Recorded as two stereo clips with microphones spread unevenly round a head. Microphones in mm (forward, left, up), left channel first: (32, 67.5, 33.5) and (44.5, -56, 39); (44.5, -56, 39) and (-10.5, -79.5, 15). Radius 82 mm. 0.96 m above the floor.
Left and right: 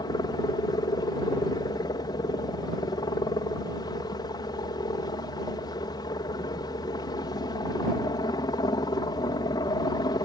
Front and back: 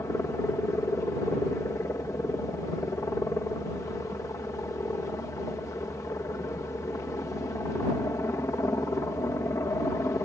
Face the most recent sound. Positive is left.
turn(degrees=65)